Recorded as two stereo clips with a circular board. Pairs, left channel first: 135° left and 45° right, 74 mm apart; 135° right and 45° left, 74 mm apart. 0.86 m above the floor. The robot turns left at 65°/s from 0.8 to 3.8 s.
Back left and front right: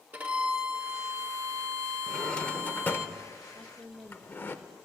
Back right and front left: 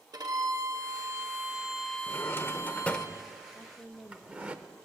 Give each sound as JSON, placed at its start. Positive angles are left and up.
{"t": 0.1, "sound": "a violin", "azimuth_deg": 20, "distance_m": 1.1}
{"t": 2.1, "sound": "a drawer", "azimuth_deg": -140, "distance_m": 0.6}
{"t": 3.5, "sound": "a woman speaking", "azimuth_deg": -50, "distance_m": 0.6}